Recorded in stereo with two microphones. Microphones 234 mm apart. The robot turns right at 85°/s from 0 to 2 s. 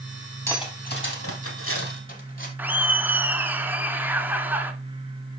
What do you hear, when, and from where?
0.5 s cutlery clinking: 10° left (ahead or behind), 2.5 m; by 2.5 s 40° left (ahead or behind), 2.5 m
2.6 s laughter: 10° right (ahead or behind), 1.1 m